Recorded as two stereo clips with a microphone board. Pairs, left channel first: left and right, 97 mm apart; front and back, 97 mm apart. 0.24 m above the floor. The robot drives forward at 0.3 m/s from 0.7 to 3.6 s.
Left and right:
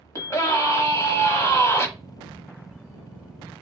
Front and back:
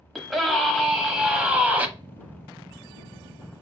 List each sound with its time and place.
0.1 s a scream: 90° left, 1.1 m; by 1.9 s 120° left, 1.2 m